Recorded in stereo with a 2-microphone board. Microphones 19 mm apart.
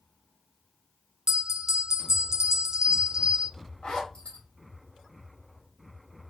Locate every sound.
1.3 s a bell: 35° right (ahead or behind), 0.6 m
3.8 s a zipper: 65° left (ahead or behind), 2.5 m